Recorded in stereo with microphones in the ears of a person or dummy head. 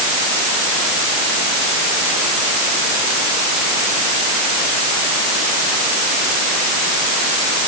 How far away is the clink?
No clink in this recording.